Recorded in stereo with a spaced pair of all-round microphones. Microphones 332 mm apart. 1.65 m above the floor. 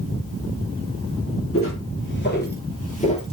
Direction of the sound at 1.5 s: 40° left (ahead or behind).